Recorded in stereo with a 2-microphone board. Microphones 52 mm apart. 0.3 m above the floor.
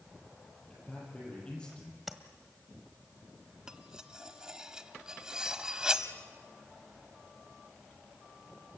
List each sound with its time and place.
0.7 s a man speaking: 15° left (ahead or behind), 8 m
2.1 s tapping: 5° right (ahead or behind), 1.4 m
3.7 s cutlery clinking: 15° right (ahead or behind), 1.0 m